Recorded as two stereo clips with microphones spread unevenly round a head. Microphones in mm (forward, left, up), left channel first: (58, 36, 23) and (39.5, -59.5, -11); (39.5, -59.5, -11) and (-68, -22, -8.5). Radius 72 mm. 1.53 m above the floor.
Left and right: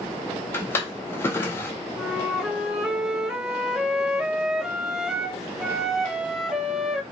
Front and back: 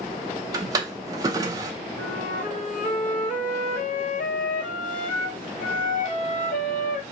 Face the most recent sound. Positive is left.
turn(degrees=-20)